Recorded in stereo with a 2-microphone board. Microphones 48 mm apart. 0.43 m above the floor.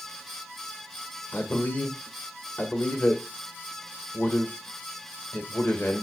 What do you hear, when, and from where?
1.3 s a man speaking: 50° left (ahead or behind), 1.5 m